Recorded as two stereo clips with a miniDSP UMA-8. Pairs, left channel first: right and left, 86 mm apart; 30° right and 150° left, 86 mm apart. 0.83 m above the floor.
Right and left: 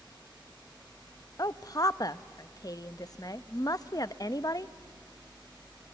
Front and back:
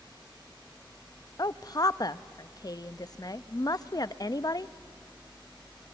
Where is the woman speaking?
60° right, 0.5 m.